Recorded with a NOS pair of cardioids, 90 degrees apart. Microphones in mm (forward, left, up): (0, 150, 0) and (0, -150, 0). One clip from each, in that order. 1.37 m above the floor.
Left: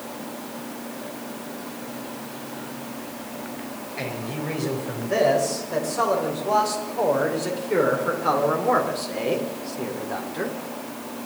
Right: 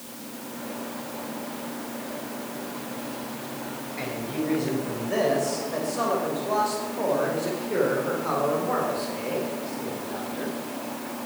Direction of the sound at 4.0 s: 30° left.